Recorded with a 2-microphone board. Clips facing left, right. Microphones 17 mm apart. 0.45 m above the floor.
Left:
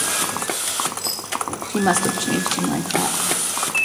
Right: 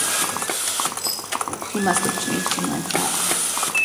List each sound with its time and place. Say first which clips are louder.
1.7 s a woman speaking: left 2 dB; 20° left (ahead or behind), 1.0 m